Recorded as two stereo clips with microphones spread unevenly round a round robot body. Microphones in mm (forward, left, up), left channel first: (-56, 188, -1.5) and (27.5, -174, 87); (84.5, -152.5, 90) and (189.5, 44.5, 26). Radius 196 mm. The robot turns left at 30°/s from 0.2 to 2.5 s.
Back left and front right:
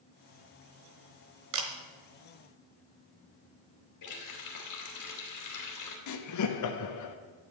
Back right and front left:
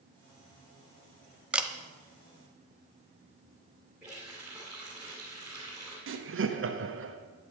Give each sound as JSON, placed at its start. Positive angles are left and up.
{"t": 1.5, "sound": "a camera shutter", "azimuth_deg": -35, "distance_m": 1.1}
{"t": 4.0, "sound": "a running tap", "azimuth_deg": 150, "distance_m": 2.5}
{"t": 6.1, "sound": "laughter", "azimuth_deg": 70, "distance_m": 1.2}